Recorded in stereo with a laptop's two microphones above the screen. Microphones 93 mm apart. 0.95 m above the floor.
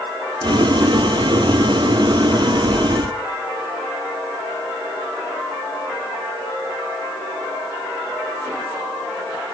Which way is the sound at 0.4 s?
55° right (ahead or behind).